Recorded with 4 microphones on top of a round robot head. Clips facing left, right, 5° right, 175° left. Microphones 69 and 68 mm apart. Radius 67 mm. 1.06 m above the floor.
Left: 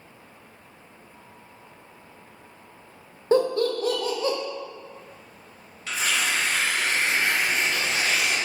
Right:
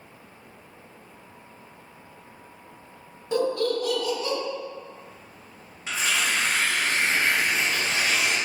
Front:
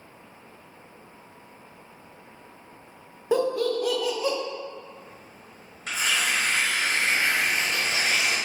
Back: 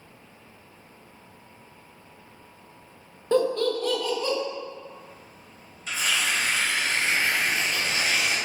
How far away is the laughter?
About 0.7 m.